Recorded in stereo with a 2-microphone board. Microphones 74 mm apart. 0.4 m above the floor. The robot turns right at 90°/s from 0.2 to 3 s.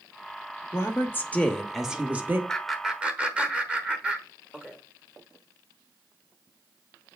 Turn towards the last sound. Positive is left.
turn(degrees=-15)  # may be behind; listen again after turning